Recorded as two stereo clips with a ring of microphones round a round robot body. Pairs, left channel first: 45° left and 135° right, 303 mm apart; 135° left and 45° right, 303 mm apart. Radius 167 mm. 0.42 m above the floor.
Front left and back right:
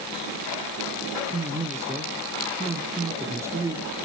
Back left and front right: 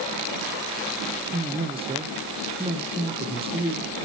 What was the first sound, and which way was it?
A man speaking, 70° right.